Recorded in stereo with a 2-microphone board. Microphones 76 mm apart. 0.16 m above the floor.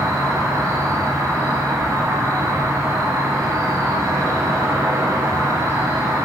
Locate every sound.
0.0 s an insect: 40° right (ahead or behind), 1.0 m